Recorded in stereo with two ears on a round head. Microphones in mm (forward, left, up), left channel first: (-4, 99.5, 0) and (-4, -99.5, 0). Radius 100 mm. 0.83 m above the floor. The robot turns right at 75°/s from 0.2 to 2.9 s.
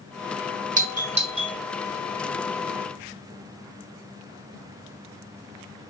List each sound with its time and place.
0.8 s a doorbell: 35° right (ahead or behind), 1.4 m; by 1.6 s 15° right (ahead or behind), 1.4 m